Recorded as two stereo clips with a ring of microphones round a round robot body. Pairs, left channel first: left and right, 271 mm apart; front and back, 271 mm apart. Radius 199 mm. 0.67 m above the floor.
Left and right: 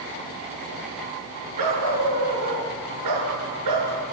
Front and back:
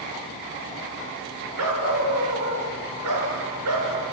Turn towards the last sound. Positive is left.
turn(degrees=-125)